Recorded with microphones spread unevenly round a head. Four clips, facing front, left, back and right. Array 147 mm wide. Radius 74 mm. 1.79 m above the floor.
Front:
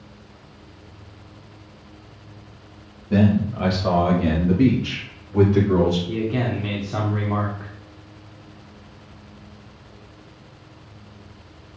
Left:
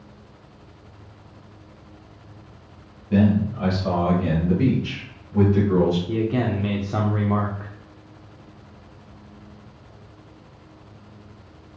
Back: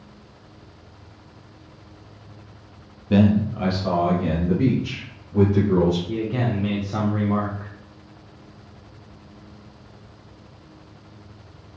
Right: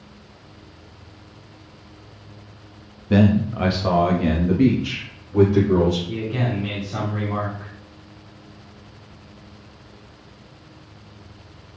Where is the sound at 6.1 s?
80° left, 0.7 m.